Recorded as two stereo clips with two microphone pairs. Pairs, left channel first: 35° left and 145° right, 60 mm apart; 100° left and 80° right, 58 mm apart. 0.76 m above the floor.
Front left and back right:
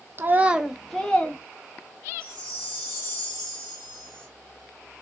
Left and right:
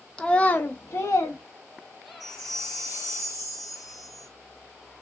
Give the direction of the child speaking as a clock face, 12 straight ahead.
6 o'clock.